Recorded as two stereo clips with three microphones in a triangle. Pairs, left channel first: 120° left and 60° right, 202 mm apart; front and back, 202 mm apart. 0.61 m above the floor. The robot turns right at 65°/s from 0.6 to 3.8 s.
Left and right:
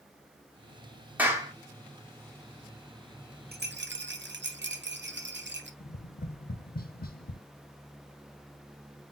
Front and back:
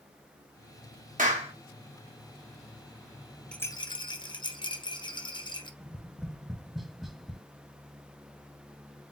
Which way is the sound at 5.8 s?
90° left.